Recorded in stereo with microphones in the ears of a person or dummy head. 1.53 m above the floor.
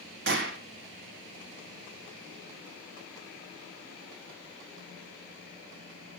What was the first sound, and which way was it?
A gunshot, 60° right (ahead or behind).